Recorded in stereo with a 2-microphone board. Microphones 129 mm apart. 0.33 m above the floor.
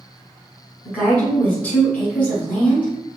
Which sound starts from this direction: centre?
A woman speaking, at 0.8 s.